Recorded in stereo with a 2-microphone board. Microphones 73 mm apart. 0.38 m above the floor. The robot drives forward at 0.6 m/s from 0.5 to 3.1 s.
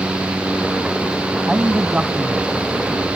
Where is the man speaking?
15° right (ahead or behind).